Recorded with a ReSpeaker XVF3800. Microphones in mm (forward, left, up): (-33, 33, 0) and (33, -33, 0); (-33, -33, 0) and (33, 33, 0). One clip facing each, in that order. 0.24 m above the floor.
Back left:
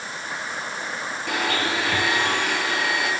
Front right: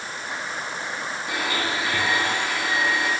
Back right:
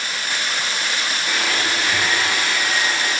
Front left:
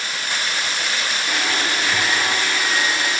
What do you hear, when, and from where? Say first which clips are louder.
1.3 s a blender: back left 3 dB, even; 130° left, 6 m